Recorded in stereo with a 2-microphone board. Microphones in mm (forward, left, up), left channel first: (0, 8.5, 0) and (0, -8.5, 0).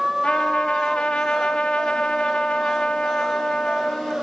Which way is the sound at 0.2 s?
80° left.